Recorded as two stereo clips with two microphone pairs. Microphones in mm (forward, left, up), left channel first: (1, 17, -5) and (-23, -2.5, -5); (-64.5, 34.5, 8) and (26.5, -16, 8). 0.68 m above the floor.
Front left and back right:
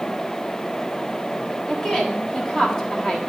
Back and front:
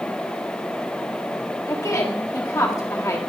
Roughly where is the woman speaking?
Left.